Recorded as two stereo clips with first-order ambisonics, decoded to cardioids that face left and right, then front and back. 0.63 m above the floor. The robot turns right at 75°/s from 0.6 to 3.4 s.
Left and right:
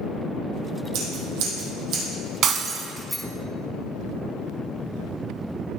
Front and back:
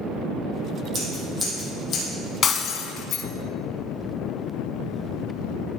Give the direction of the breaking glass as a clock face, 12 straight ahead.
2 o'clock.